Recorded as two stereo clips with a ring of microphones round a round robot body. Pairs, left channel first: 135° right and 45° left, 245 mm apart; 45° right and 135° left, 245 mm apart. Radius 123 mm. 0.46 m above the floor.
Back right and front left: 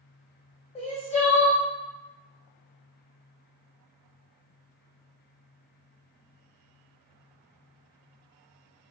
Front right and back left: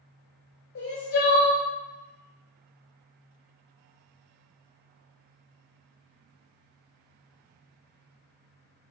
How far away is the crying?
About 1.5 m.